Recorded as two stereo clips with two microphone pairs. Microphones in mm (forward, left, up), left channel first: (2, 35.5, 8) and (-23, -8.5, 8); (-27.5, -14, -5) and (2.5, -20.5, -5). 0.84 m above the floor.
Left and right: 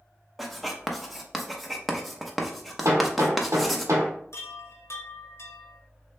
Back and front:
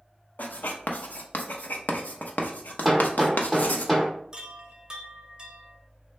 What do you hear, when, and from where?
0.4 s writing: 145° left, 0.7 m
2.9 s hammering: 105° right, 1.2 m
4.3 s a chime: 50° left, 0.7 m